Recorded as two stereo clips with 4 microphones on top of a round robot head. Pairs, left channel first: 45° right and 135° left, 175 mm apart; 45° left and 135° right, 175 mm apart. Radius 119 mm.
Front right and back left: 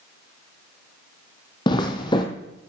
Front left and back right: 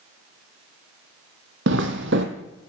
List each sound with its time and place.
1.7 s footsteps: 110° right, 1.0 m